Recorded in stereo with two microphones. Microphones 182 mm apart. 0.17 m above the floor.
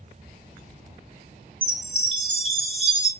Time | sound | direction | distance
1.6 | a chime | 30° right (ahead or behind) | 0.7 m